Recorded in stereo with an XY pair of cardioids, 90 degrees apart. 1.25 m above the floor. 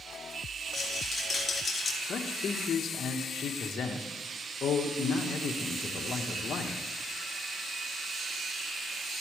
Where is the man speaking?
60° left, 1.5 m.